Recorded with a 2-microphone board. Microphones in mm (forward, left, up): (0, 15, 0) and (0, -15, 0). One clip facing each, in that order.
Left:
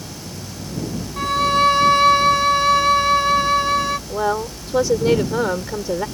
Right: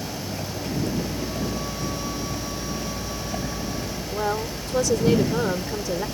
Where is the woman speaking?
25° left (ahead or behind).